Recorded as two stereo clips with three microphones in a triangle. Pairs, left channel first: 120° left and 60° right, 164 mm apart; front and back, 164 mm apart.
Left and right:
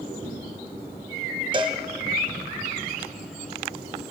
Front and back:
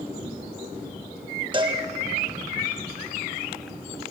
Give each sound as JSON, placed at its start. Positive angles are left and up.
{"t": 1.5, "sound": "a cowbell", "azimuth_deg": -120, "distance_m": 1.3}